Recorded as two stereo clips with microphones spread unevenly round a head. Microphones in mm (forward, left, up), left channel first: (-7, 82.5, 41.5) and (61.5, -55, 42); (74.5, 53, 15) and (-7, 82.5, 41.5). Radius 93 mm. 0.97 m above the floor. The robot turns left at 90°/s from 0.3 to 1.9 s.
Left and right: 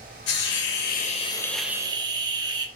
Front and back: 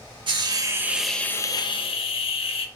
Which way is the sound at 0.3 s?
145° left.